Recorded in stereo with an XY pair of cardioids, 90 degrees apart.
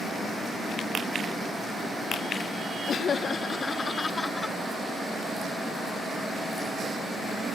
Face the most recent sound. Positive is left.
turn(degrees=25)